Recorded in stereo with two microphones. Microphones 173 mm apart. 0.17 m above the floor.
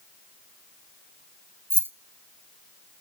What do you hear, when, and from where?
1.7 s keys jangling: 10° right (ahead or behind), 0.9 m